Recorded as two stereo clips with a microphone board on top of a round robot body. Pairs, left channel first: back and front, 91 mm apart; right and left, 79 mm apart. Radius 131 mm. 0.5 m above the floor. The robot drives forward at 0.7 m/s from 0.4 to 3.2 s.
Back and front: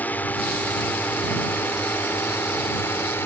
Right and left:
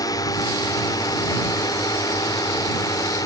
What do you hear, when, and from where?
0.0 s a drone: 110° right; by 3.2 s 115° right